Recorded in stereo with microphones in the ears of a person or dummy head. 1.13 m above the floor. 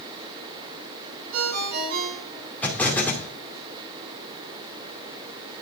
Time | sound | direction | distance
1.3 | a ringtone | 50° right (ahead or behind) | 6.5 m
2.6 | an explosion | 5° left (ahead or behind) | 2 m